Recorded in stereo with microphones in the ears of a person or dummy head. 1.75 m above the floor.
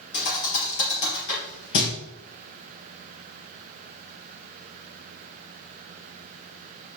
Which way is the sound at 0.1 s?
60° left (ahead or behind).